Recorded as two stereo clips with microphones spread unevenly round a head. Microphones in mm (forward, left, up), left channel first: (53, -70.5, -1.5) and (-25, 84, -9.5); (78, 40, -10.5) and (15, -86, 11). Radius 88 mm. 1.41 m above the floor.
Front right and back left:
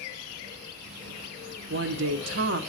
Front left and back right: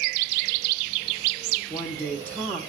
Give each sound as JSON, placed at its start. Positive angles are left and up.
{"t": 1.7, "sound": "a woman speaking", "azimuth_deg": 145, "distance_m": 0.7}